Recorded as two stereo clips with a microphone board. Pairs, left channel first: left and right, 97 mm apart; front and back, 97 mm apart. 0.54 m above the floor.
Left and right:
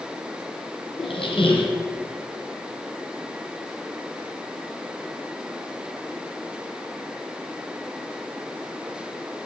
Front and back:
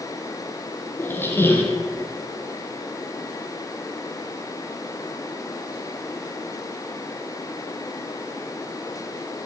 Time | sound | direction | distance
1.0 | a squeak | 70° left | 2.0 m